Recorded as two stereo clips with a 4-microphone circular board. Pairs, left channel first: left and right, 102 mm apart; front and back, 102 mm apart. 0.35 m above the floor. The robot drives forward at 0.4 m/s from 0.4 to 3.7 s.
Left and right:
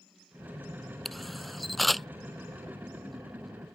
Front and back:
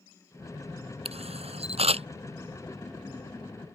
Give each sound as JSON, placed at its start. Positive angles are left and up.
{"t": 1.1, "sound": "a camera shutter", "azimuth_deg": 180}